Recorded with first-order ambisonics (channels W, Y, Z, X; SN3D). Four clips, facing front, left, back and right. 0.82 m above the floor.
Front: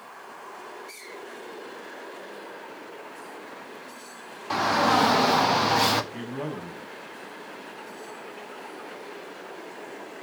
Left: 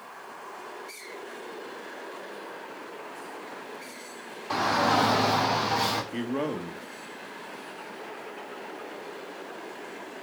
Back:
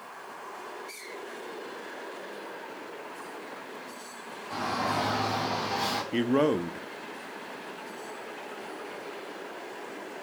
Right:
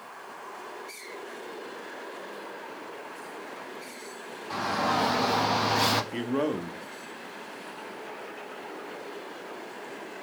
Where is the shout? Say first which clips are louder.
Left 4 dB, front 8 dB; 30° left, 1.5 m; by 6.0 s 30° right, 1.0 m.